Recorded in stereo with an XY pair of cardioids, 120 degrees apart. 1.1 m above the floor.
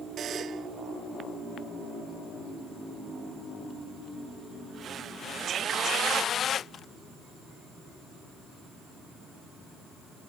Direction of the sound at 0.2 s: 50° right.